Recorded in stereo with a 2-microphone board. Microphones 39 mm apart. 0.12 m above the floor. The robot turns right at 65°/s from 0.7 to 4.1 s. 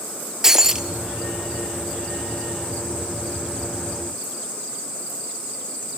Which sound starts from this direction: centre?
Breaking glass, at 0.4 s.